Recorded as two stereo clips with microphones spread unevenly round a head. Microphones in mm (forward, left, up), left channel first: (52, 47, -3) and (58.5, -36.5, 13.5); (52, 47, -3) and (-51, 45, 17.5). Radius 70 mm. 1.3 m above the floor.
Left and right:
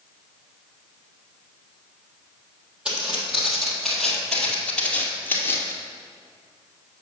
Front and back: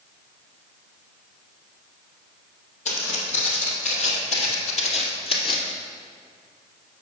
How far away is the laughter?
I don't hear laughter.